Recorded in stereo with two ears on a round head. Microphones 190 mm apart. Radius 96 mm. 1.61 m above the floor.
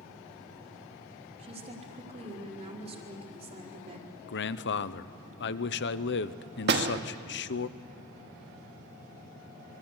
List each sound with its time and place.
1.4 s a woman speaking: 35° right (ahead or behind), 4 m
4.3 s a man speaking: 60° left (ahead or behind), 1.0 m
6.7 s a door slam: 50° right (ahead or behind), 1.5 m